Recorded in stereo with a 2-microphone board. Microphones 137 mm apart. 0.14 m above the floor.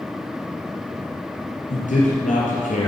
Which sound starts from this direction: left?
A man speaking, at 1.7 s.